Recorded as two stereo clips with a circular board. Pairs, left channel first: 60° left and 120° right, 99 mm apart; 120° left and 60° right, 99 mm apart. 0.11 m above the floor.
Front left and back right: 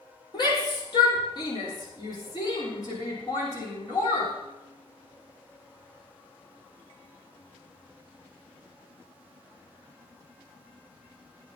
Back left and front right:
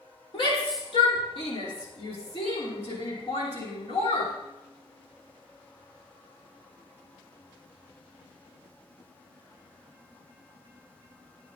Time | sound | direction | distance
0.3 | a shout | 100° left | 4.5 m